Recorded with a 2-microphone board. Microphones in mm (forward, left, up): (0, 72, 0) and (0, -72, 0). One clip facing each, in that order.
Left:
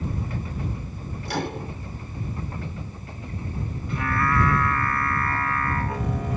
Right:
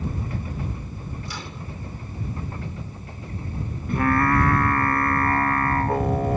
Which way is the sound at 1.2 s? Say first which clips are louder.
Left 7 dB; 65° left (ahead or behind).